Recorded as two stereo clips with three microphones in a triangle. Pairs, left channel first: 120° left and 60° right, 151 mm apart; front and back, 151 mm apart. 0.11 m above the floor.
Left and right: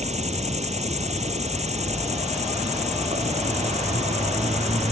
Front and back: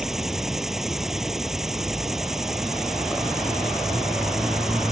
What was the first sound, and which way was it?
An insect, 95° right.